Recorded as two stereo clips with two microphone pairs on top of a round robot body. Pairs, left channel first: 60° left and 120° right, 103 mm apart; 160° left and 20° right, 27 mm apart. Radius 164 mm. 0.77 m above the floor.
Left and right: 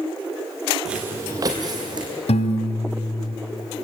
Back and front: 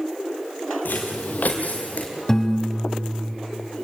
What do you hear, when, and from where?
0.8 s footsteps: 155° left, 0.9 m; by 2.1 s 170° right, 2 m
2.3 s a piano: 80° left, 1.5 m